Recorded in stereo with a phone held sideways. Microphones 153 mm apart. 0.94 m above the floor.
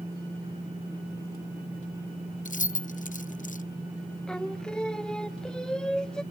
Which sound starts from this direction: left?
Keys jangling, at 2.5 s.